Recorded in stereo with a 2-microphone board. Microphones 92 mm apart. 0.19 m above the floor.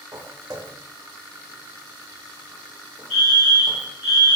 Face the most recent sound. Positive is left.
turn(degrees=5)  # may be behind; listen again after turning